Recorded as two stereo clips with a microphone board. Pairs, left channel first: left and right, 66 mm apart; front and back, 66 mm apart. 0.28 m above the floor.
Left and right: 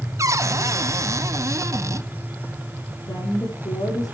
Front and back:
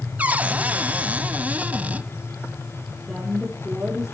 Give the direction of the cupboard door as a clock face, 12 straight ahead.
4 o'clock.